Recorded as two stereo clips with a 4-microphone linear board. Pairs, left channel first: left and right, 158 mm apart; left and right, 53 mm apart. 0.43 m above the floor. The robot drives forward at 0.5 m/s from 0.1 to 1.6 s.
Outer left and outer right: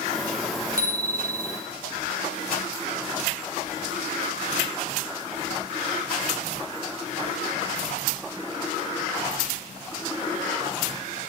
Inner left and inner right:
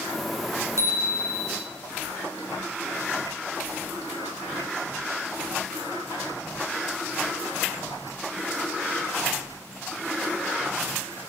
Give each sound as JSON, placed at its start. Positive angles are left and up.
{"t": 0.8, "sound": "a bicycle bell", "side_deg": -75, "distance_m": 3.5}